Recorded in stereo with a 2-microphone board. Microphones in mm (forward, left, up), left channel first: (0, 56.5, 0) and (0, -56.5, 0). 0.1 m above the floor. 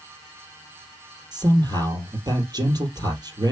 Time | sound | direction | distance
1.3 | a man speaking | 35° right (ahead or behind) | 3.5 m